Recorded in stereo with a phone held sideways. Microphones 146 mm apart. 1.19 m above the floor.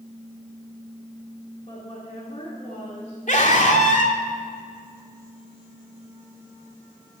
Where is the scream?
60° left (ahead or behind), 3 m.